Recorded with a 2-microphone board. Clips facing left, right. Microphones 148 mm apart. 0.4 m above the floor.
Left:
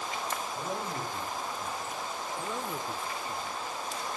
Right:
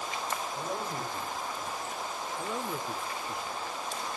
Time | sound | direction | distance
0.6 | a man speaking | 15° left (ahead or behind) | 10 m
2.4 | a man speaking | 10° right (ahead or behind) | 0.9 m